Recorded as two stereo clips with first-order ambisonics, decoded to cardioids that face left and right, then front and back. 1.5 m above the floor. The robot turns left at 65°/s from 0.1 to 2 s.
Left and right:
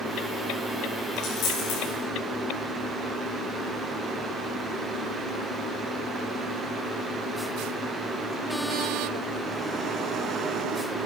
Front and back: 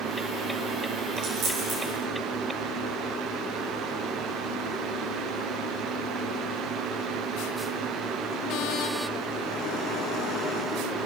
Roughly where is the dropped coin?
Behind left.